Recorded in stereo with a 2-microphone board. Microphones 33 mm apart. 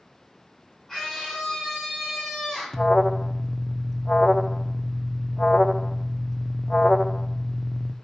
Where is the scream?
Centre (ahead or behind), 6.5 m; by 2.9 s 10° left (ahead or behind), 5.5 m.